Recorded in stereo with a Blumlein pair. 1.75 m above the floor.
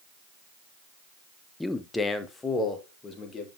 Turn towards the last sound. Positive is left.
turn(degrees=15)